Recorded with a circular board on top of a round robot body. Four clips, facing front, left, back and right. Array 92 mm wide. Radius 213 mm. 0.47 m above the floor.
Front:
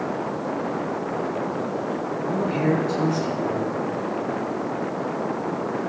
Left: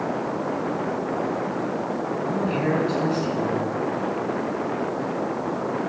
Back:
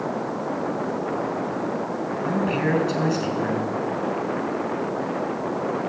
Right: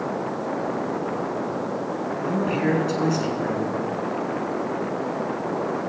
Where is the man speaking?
165° right, 5.5 m.